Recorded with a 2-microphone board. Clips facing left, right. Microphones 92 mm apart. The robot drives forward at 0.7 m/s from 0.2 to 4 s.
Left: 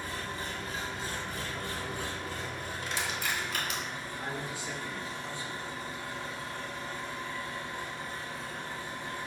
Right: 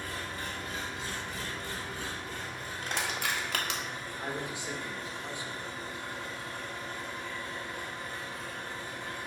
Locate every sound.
0.0 s an engine running: 25° left (ahead or behind), 1.6 m; by 9.3 s 30° left (ahead or behind), 1.5 m
2.8 s crushing: 45° right (ahead or behind), 0.9 m; by 3.8 s 70° right (ahead or behind), 0.7 m
4.2 s a man speaking: 20° right (ahead or behind), 0.9 m